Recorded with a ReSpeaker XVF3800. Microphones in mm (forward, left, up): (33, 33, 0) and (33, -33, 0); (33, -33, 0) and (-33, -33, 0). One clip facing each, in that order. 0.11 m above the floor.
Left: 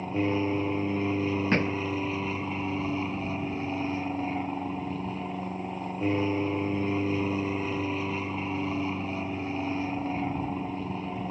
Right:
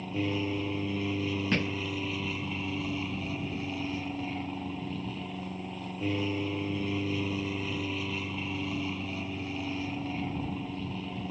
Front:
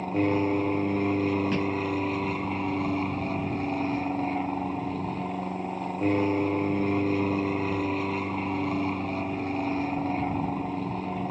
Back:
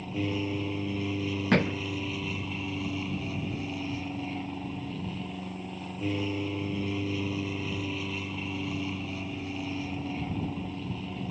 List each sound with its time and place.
0.0 s an aircraft: 35° left
1.5 s a thud: 150° left